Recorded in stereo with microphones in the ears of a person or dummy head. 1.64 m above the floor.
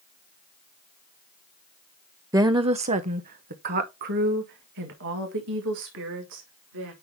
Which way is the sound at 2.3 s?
15° right (ahead or behind).